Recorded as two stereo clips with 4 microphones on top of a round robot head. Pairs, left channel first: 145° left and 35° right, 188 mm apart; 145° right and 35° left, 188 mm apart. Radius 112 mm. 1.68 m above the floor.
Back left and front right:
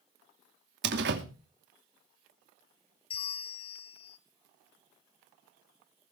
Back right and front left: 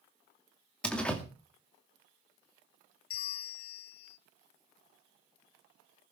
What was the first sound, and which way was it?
A door slam, 60° right.